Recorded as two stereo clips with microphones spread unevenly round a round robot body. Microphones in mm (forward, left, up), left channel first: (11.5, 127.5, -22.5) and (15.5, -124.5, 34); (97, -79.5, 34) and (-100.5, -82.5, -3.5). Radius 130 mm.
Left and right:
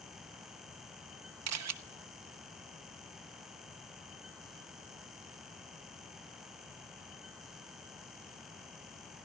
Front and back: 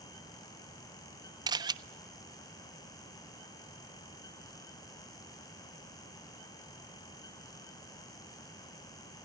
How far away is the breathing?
I don't hear breathing.